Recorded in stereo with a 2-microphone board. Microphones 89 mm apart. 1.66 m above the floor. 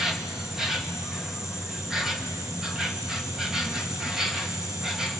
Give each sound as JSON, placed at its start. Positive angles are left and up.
{"t": 0.0, "sound": "an insect", "side_deg": -5, "distance_m": 1.6}